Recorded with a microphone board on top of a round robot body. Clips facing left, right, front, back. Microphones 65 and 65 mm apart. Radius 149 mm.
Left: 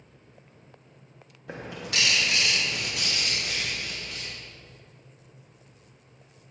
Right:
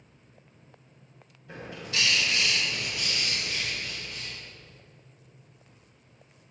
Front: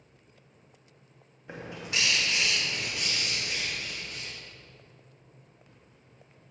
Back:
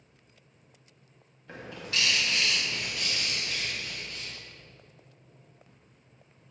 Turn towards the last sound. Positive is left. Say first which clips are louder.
# left 2 dB, front 1 dB
turn(degrees=70)